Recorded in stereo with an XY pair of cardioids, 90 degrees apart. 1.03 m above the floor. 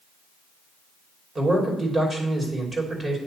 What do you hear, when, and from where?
1.4 s a man speaking: 35° right, 2.5 m